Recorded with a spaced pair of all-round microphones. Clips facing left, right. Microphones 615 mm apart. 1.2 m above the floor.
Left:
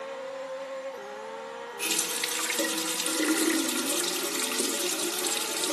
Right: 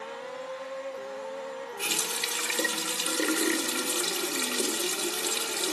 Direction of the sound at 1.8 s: 5° right (ahead or behind).